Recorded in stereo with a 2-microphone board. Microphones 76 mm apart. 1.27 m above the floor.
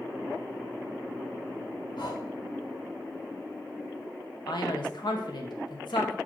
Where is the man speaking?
75° left (ahead or behind), 1.9 m.